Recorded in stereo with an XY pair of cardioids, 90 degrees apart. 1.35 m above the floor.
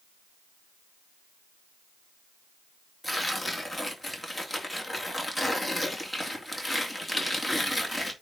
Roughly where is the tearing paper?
Ahead.